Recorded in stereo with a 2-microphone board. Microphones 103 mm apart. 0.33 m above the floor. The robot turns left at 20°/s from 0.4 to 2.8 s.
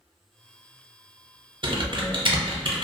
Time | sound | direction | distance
1.6 | typing on a keyboard | 50° right (ahead or behind) | 0.5 m